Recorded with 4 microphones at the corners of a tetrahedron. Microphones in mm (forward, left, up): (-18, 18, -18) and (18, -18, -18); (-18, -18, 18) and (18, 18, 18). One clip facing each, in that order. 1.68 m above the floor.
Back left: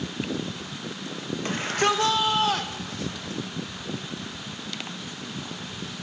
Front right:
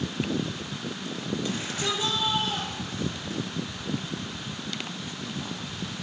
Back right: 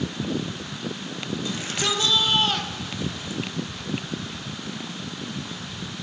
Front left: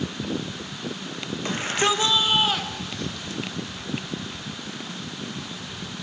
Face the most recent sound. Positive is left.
turn(degrees=150)